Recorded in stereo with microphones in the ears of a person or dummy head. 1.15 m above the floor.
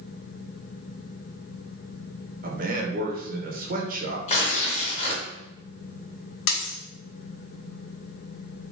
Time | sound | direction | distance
2.4 | a man speaking | 40° right (ahead or behind) | 0.8 m
4.3 | tearing paper | 40° left (ahead or behind) | 1.8 m
6.5 | a dropped coin | 75° left (ahead or behind) | 1.2 m